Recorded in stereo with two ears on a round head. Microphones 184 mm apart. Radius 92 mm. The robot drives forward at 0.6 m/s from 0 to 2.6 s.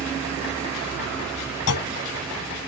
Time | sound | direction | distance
1.7 | a clunk | 85° left | ?